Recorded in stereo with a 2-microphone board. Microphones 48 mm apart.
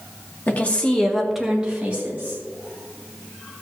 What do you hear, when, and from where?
0.5 s a woman speaking: 35° left (ahead or behind), 2 m; by 2.4 s 40° right (ahead or behind), 2.5 m